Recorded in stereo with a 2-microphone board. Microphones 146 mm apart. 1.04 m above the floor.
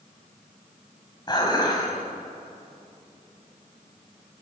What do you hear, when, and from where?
1.3 s dishes clattering: 30° left (ahead or behind), 5 m